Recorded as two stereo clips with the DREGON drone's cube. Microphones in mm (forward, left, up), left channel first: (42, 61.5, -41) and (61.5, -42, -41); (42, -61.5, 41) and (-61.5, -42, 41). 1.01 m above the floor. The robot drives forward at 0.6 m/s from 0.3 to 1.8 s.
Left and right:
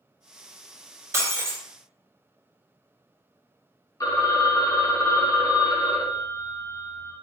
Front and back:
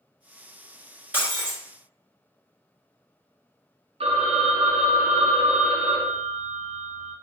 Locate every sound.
1.1 s breaking glass: 125° right, 1.3 m; by 1.6 s 140° right, 1.4 m
4.0 s a phone ringing: 150° left, 0.6 m